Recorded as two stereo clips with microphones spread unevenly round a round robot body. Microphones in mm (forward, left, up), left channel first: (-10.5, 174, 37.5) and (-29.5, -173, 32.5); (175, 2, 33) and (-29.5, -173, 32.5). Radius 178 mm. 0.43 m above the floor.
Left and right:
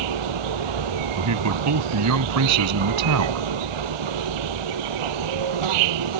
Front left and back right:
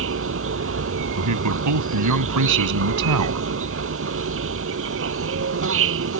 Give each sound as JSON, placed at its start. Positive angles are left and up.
{"t": 0.0, "sound": "an insect", "azimuth_deg": -100}
{"t": 1.2, "sound": "a man speaking", "azimuth_deg": -135}